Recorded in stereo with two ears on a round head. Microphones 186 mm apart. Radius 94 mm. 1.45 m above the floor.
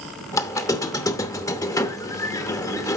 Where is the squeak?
15° left (ahead or behind), 0.8 m.